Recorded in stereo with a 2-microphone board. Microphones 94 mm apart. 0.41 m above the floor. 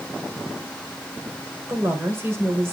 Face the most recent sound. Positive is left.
turn(degrees=-25)  # may be behind; listen again after turning